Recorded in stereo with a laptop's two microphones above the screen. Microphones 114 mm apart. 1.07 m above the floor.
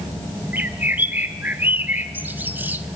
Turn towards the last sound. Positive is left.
turn(degrees=-15)  # may be behind; listen again after turning